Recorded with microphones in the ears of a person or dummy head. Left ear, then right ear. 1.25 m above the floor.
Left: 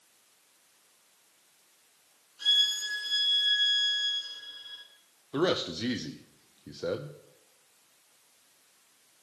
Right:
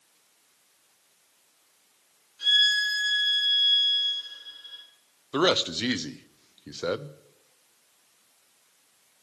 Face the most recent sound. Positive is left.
turn(degrees=-35)  # may be behind; listen again after turning